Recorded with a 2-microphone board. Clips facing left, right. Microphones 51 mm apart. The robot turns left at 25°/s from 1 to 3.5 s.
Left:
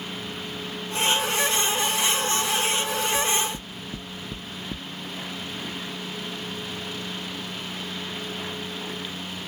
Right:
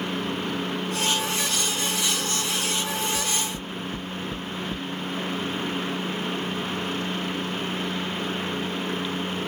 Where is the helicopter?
65° right; by 9.5 s 125° right.